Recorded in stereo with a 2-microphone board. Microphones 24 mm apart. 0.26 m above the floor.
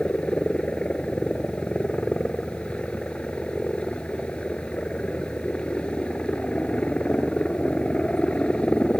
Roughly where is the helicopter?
Left.